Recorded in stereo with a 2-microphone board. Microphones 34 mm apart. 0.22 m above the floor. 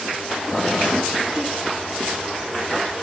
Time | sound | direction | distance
0.5 | boiling | 25° left (ahead or behind) | 3.5 m